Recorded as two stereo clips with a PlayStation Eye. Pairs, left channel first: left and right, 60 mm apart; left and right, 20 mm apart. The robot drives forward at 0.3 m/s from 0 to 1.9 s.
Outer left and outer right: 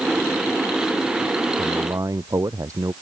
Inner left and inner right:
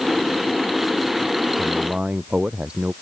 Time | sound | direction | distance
1.6 | a man speaking | 60° right (ahead or behind) | ?